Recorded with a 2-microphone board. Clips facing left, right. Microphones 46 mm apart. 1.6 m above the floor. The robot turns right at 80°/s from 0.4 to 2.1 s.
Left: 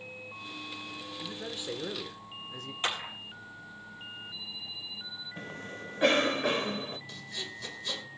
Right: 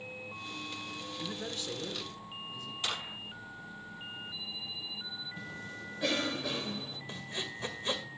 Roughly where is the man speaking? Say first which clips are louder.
Even; ahead.